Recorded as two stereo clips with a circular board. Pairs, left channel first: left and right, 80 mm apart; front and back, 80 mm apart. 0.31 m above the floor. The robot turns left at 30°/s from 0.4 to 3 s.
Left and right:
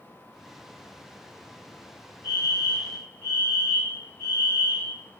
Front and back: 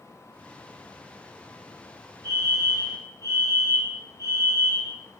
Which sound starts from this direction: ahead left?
A fire alarm, at 2.2 s.